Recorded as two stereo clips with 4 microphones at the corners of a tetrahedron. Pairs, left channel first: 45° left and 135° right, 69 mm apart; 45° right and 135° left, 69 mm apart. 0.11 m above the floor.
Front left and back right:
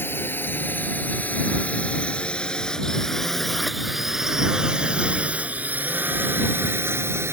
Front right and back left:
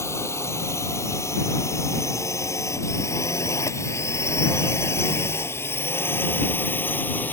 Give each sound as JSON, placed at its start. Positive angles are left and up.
{"t": 0.0, "sound": "a drone", "azimuth_deg": -5}